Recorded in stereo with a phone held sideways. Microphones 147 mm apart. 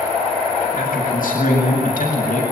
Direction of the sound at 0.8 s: 75° left (ahead or behind).